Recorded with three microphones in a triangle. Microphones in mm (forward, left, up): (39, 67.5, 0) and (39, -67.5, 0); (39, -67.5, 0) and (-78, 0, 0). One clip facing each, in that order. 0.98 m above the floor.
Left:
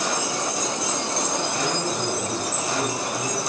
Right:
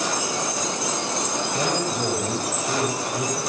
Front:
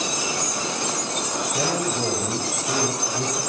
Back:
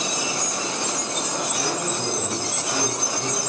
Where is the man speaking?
35° right, 6 m; by 3.4 s 50° right, 6 m.